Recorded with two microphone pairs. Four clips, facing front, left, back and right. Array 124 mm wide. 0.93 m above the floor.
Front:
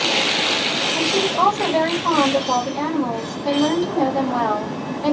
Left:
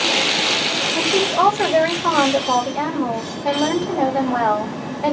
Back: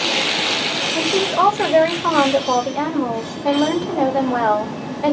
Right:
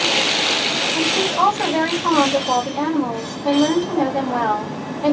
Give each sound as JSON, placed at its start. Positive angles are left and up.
{"t": 0.9, "sound": "a woman speaking", "azimuth_deg": 175, "distance_m": 1.7}